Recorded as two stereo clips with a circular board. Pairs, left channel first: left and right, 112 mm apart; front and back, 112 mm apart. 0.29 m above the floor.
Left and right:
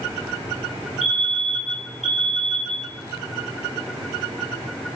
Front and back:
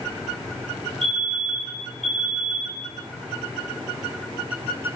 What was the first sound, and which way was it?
A fire alarm, 85° left.